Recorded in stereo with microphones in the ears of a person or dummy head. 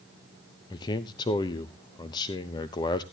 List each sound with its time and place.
0.7 s a man speaking: 25° left (ahead or behind), 0.6 m